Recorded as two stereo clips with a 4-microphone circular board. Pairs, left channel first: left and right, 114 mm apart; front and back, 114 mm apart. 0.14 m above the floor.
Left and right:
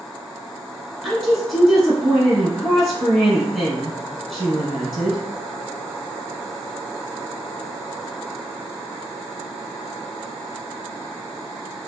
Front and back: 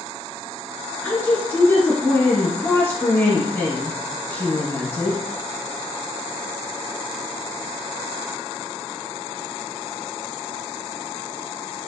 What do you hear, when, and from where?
1.0 s a woman speaking: straight ahead, 1.2 m